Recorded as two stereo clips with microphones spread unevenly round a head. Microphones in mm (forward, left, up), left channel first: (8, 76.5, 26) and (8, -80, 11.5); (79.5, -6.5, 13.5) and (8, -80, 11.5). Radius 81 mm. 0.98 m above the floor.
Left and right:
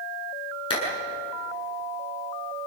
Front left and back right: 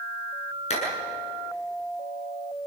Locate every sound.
0.7 s a clap: 30° left, 9 m